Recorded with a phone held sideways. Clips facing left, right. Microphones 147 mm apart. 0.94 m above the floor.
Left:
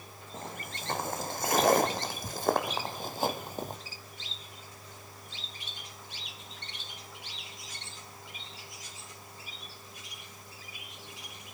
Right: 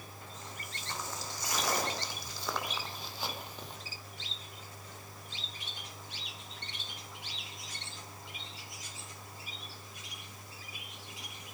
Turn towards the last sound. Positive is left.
turn(degrees=45)  # may be behind; listen again after turning